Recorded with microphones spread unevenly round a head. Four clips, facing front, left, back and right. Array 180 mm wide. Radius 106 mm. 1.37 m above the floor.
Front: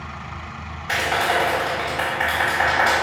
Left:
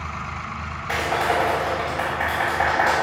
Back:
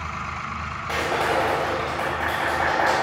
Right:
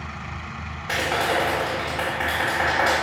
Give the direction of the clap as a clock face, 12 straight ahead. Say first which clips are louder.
Left 1 dB, front 2 dB; 4 o'clock.